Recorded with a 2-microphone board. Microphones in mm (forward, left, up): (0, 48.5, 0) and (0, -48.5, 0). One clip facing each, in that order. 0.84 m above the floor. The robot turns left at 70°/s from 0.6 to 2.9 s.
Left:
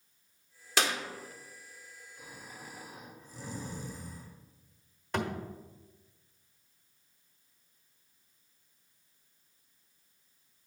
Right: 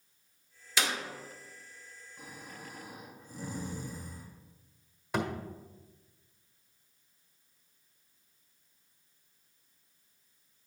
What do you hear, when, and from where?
0.8 s a clap: 60° left (ahead or behind), 1.7 m; by 1.0 s 75° left (ahead or behind), 1.7 m
2.2 s snoring: 60° right, 1.8 m; by 4.3 s 110° right, 1.8 m
5.1 s a thud: 5° right (ahead or behind), 1.3 m